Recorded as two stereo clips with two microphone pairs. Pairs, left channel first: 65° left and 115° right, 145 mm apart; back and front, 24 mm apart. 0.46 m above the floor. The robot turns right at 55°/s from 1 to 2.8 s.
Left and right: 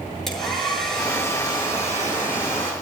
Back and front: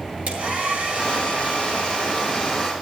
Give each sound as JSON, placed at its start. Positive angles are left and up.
{"t": 0.3, "sound": "a hair dryer", "azimuth_deg": -20, "distance_m": 7.5}